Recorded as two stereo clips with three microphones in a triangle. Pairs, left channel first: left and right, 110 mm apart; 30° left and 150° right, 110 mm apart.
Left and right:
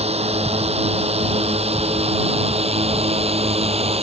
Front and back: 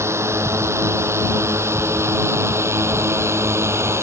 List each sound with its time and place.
0.0 s a drone: 85° right